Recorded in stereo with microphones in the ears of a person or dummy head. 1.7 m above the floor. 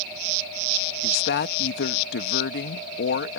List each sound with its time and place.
1.0 s a woman speaking: 75° left (ahead or behind)